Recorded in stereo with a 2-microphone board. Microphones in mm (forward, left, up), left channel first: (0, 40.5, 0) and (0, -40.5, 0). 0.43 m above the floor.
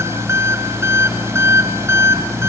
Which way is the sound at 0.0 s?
35° right (ahead or behind).